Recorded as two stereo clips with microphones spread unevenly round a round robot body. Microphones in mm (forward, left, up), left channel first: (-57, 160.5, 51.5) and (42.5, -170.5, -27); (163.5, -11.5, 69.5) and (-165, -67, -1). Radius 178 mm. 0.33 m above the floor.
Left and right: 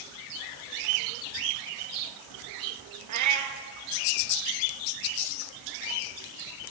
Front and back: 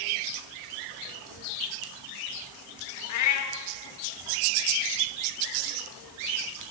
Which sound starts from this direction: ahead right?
A cat meowing, at 3.1 s.